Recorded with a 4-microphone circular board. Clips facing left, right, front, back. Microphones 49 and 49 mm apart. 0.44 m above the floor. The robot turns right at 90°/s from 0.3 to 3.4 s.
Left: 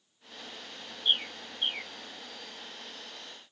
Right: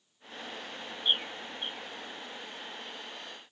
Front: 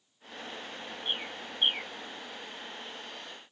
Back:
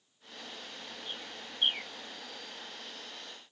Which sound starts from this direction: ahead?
A bird, at 1.1 s.